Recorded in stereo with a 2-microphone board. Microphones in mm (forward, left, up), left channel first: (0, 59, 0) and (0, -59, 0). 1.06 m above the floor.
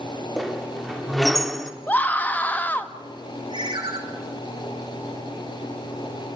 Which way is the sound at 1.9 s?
15° left (ahead or behind).